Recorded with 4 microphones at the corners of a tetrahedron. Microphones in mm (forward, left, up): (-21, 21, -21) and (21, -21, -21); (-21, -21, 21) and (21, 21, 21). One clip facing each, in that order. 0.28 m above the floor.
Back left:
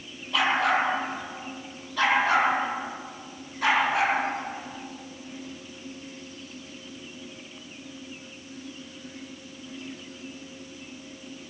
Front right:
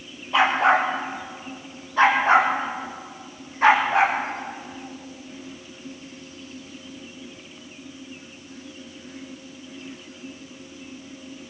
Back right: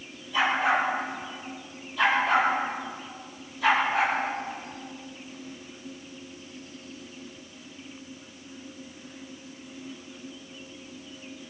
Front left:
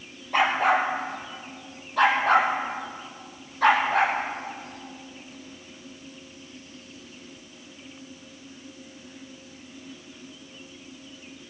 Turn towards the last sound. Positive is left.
turn(degrees=15)